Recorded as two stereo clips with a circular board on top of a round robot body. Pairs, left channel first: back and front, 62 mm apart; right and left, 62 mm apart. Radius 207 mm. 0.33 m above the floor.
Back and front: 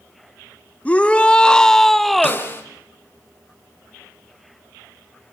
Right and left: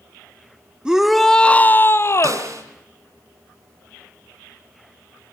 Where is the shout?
145° left, 1.2 m; by 2.5 s 90° right, 1.6 m.